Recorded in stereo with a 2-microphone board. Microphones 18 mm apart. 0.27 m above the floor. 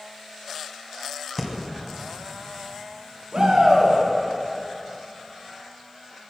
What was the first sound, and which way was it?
Breathing, 10° left (ahead or behind).